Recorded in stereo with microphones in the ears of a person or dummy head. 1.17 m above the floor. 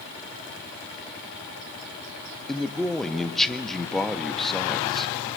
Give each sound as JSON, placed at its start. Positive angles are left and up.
{"t": 2.5, "sound": "a man speaking", "side_deg": 0, "distance_m": 1.2}